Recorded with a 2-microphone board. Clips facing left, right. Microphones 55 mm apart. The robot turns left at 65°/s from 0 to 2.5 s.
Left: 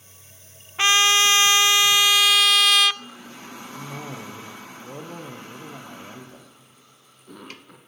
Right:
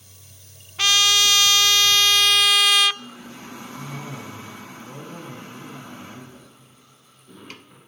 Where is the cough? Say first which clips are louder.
Left 1 dB; 65° left (ahead or behind), 5.5 m.